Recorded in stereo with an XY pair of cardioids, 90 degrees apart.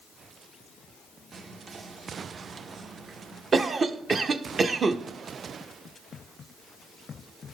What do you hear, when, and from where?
1.3 s whispering: 50° right, 0.8 m
3.5 s a cough: 45° right, 0.7 m